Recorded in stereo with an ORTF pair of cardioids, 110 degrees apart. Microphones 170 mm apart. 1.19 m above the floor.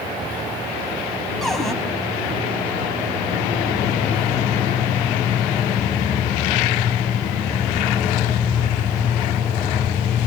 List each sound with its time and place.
1.4 s a cupboard door: straight ahead, 4.5 m